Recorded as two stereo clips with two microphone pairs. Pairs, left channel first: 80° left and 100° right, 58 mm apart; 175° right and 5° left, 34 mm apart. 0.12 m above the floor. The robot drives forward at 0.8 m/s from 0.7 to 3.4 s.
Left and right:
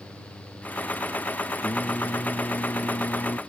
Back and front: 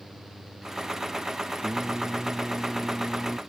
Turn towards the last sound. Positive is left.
turn(degrees=100)